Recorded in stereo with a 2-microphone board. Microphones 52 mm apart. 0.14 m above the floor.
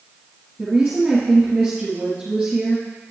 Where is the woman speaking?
5° right (ahead or behind), 2.5 m.